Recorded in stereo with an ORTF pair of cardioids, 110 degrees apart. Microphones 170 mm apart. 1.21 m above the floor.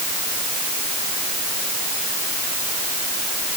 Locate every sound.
Only background noise.